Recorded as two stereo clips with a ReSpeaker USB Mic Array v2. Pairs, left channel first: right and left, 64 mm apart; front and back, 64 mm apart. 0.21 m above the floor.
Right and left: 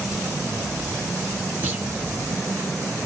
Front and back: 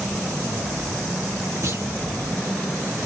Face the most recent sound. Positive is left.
turn(degrees=150)